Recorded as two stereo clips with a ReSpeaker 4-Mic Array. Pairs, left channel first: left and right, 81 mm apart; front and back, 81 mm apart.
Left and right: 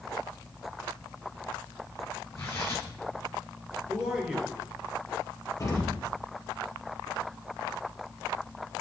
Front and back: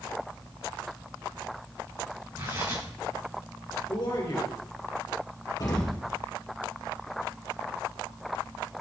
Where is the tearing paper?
140° left, 3.5 m.